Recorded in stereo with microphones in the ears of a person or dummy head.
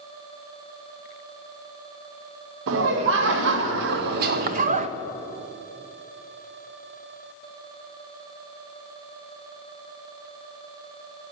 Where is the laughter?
70° right (ahead or behind), 1.8 m; by 4.9 s 35° right (ahead or behind), 0.6 m.